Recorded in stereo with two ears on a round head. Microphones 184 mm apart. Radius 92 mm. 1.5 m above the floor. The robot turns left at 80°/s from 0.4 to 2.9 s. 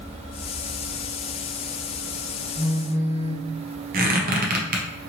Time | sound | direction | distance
2.5 | a phone buzzing | 30° right (ahead or behind) | 1.2 m
3.9 | a squeak | 45° right (ahead or behind) | 0.6 m